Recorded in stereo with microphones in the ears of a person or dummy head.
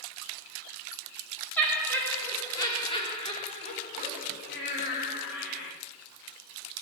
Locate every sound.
1.6 s laughter: 5° left (ahead or behind), 3 m; by 5.7 s 70° left (ahead or behind), 3 m